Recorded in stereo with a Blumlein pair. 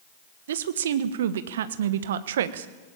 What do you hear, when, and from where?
0.5 s a woman speaking: 60° right, 1.2 m